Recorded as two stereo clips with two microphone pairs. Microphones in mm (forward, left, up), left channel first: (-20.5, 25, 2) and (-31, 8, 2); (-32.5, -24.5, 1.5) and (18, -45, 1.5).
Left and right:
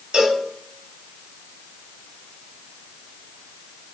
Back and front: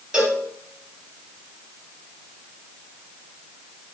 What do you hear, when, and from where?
0.1 s a cowbell: 90° right, 1.0 m